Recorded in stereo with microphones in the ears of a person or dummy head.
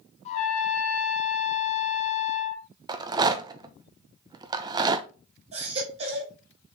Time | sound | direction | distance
0.2 | a trumpet | 35° left (ahead or behind) | 2 m
2.9 | a rattle | 20° right (ahead or behind) | 0.6 m
5.5 | a baby crying | 30° right (ahead or behind) | 3.5 m